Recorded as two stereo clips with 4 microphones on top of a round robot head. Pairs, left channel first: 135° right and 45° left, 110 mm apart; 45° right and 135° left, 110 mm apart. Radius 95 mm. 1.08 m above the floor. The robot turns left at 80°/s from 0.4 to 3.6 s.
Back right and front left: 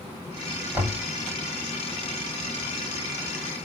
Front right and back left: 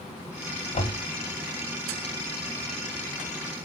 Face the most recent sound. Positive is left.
turn(degrees=105)